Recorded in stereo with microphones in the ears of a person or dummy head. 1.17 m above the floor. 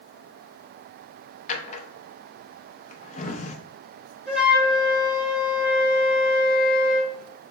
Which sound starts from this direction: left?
A drawer, at 1.5 s.